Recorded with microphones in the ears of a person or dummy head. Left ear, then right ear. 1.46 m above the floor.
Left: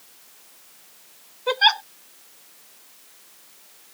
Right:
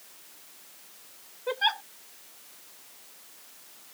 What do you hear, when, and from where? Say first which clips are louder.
1.5 s a giggle: left 9 dB; 35° left (ahead or behind)